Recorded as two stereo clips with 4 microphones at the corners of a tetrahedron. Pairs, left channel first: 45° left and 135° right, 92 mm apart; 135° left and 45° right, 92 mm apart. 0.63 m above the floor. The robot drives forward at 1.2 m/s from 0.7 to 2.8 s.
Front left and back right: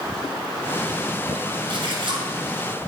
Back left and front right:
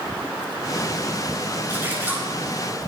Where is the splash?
115° right, 8.5 m.